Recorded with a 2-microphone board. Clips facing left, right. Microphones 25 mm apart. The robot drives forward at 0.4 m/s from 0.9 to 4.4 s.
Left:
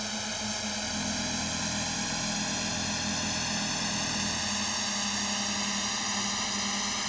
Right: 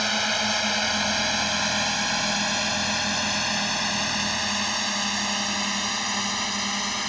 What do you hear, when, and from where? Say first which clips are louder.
0.0 s a drone: right 10 dB; 45° right (ahead or behind); by 7.1 s 20° right (ahead or behind)